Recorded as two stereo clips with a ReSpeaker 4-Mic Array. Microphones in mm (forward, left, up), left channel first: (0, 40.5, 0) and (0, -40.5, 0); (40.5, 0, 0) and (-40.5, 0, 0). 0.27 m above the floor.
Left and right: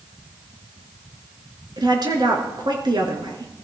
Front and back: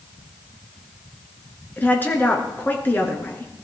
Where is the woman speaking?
65° right, 3 m.